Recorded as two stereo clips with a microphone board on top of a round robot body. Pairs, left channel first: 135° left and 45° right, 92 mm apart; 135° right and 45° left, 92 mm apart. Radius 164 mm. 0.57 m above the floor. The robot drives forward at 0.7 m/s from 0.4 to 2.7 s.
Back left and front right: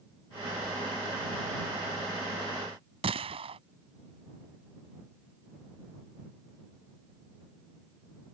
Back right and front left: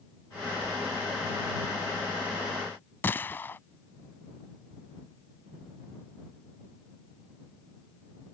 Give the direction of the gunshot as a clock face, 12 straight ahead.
2 o'clock.